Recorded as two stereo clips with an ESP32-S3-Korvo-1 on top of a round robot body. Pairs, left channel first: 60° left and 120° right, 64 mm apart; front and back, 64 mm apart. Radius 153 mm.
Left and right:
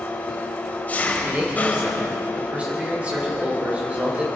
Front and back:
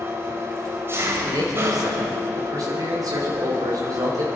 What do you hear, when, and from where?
0.0 s an engine running: 130° left, 1.2 m
1.2 s a man speaking: 175° left, 4 m